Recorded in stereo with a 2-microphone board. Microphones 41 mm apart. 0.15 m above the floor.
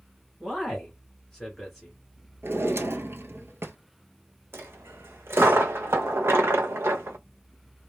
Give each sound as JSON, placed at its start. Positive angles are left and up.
{"t": 0.4, "sound": "a man speaking", "side_deg": 5, "distance_m": 1.8}
{"t": 2.4, "sound": "a drawer", "side_deg": -75, "distance_m": 0.6}
{"t": 4.5, "sound": "a dropped coin", "side_deg": -75, "distance_m": 0.6}